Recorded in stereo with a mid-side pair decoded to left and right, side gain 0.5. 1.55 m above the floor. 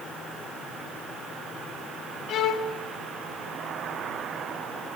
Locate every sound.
2.3 s a violin: 65° left, 1.1 m